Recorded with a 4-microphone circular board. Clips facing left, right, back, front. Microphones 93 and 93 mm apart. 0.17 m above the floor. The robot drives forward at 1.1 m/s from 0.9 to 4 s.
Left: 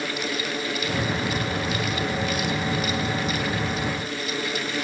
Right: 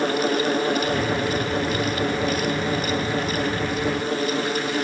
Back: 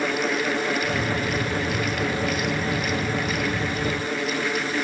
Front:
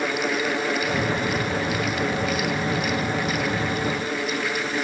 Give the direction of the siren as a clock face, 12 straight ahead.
No siren in this recording.